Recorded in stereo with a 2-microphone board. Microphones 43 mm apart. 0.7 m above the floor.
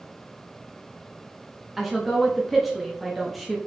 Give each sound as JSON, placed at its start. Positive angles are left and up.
{"t": 1.8, "sound": "a woman speaking", "side_deg": 0, "distance_m": 0.7}